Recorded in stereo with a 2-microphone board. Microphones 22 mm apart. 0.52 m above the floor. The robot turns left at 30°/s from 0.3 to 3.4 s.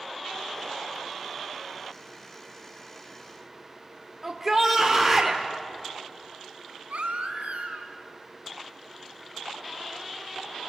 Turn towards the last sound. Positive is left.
turn(degrees=-85)